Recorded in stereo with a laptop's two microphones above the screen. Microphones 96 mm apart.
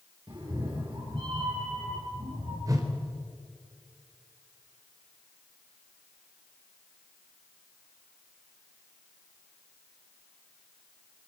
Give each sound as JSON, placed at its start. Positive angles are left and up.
{"t": 0.3, "sound": "a cat meowing", "side_deg": -55, "distance_m": 7.0}
{"t": 2.7, "sound": "a whoosh", "side_deg": -40, "distance_m": 3.5}